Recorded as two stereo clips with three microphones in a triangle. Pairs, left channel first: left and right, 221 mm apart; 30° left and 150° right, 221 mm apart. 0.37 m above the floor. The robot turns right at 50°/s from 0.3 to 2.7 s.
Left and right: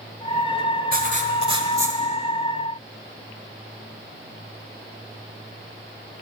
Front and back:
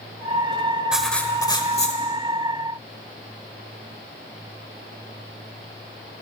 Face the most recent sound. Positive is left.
turn(degrees=25)